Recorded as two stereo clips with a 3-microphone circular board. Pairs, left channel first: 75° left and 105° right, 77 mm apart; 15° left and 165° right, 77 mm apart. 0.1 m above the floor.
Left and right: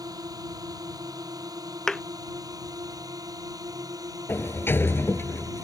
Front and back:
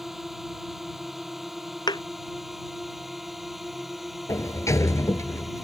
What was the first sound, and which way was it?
A drone, 80° right.